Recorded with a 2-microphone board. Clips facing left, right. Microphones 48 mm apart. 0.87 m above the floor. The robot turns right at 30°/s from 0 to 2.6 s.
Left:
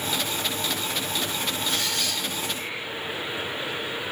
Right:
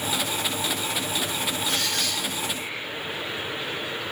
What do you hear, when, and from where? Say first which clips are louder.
1.7 s a squeak: right 1 dB; 50° right (ahead or behind), 2 m; by 2.2 s 35° right (ahead or behind), 2 m